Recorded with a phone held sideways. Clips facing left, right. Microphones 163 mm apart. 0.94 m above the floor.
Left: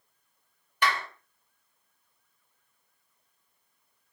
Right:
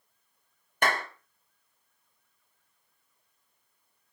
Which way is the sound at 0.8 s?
45° right (ahead or behind).